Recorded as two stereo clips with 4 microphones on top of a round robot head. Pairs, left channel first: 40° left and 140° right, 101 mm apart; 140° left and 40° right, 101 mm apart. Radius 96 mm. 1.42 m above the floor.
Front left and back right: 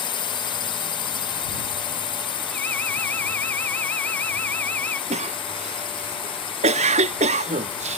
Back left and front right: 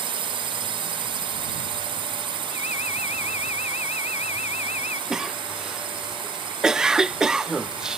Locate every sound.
0.0 s a drone: straight ahead
2.5 s an alarm: 115° left
5.1 s a cough: 125° right